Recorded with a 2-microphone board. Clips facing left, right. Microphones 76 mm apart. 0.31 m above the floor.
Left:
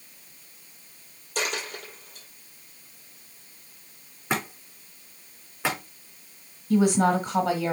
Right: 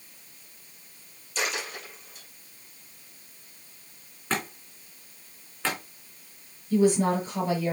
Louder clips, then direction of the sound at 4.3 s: Left 2 dB; 15° left (ahead or behind).